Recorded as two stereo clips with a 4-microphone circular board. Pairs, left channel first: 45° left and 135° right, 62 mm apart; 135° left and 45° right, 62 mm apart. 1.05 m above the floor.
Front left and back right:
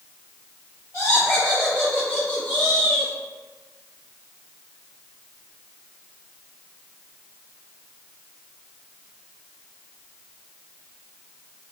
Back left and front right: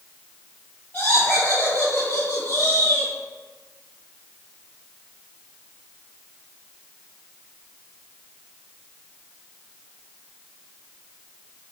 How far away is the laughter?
About 1.4 m.